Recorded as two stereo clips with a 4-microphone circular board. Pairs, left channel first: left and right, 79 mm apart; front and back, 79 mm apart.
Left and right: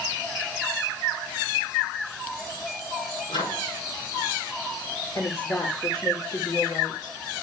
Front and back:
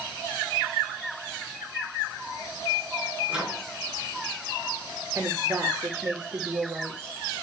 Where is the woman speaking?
120° left, 3 m.